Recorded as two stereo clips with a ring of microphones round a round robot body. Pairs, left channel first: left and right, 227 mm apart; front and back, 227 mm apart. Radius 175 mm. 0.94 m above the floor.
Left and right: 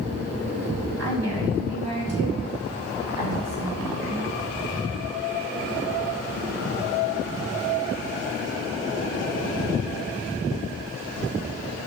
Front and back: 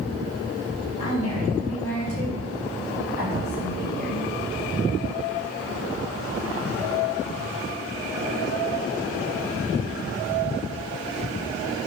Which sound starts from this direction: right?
A woman speaking, at 1.0 s.